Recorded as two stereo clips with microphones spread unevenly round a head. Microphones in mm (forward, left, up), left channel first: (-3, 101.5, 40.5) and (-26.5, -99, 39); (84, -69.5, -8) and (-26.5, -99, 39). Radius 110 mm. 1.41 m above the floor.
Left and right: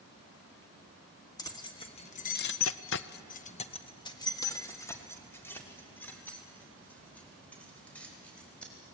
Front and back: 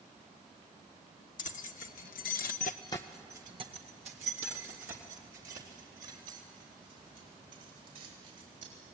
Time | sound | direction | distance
1.4 | keys jangling | 10° left | 1.6 m